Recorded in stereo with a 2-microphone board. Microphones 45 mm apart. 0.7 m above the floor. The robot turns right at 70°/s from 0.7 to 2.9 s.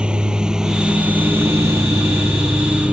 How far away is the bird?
I don't hear a bird.